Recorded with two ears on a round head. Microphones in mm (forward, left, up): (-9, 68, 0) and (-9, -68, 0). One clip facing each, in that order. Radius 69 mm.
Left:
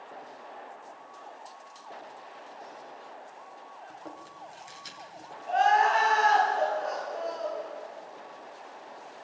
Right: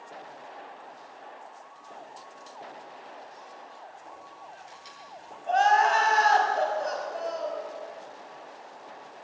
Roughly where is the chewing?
Left.